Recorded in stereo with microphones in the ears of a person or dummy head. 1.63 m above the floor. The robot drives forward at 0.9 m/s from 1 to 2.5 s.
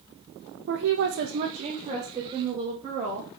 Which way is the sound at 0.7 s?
60° right (ahead or behind).